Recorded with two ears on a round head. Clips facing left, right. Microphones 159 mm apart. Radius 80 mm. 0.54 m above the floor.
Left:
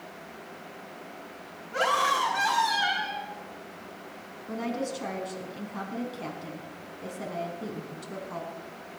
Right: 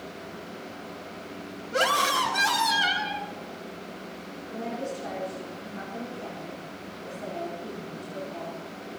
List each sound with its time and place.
1.7 s a scream: 50° right (ahead or behind), 4 m
4.5 s a woman speaking: 80° left, 4.5 m